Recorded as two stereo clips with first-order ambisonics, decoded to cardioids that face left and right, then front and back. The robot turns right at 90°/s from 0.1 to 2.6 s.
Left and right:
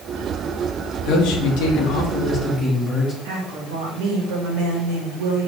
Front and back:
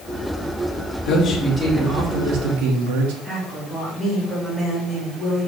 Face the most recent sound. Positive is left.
turn(degrees=-95)